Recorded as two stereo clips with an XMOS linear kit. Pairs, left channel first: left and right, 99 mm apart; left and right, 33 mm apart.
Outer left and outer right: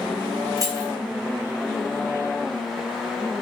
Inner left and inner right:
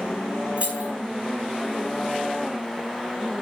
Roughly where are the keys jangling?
Right.